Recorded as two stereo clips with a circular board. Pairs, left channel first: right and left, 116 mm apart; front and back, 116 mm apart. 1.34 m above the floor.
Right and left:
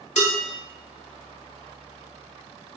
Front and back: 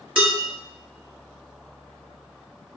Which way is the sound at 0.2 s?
95° right.